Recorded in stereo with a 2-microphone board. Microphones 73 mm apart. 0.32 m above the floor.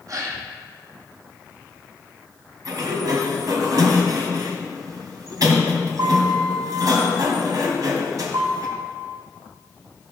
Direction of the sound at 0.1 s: 50° right (ahead or behind).